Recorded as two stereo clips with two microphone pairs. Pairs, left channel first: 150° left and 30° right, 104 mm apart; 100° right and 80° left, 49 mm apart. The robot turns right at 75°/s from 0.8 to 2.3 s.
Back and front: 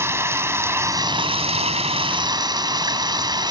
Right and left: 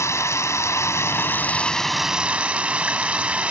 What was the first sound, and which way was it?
Running water, 95° right.